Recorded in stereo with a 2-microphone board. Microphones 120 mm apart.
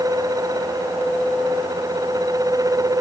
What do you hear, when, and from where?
Only background noise.